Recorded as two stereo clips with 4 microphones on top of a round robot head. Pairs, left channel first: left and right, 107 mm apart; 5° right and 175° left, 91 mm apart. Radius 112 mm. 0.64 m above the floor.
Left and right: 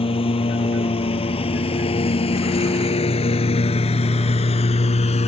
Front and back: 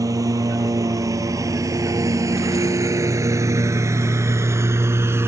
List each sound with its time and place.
0.0 s a lawn mower: 125° left; by 5.3 s 115° left